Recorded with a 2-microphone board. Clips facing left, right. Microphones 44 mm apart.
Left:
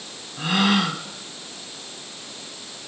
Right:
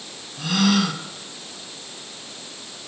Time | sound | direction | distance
0.4 | a gasp | 25° left (ahead or behind) | 1.7 m